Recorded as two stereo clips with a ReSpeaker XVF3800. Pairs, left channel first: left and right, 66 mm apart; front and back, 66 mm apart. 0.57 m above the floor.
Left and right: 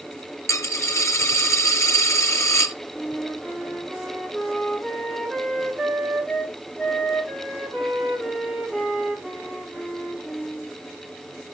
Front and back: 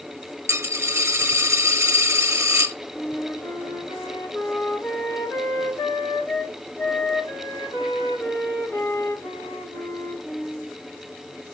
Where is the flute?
5° right, 1.2 m.